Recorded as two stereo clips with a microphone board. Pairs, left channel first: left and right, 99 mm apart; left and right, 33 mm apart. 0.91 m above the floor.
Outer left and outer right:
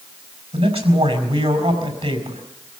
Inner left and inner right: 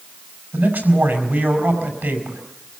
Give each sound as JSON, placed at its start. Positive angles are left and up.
{"t": 0.5, "sound": "a man speaking", "side_deg": -75, "distance_m": 5.0}